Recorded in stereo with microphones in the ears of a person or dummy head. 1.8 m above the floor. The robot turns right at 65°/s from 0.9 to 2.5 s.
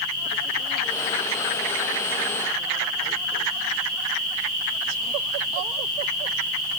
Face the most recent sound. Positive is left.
No sound to turn to.